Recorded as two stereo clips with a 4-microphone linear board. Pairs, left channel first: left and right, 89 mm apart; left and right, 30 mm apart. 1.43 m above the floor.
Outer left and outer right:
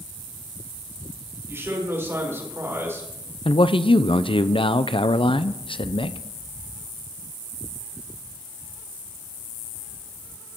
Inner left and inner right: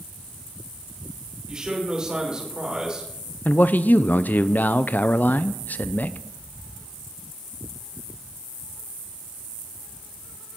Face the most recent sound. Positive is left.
turn(degrees=75)  # may be behind; listen again after turning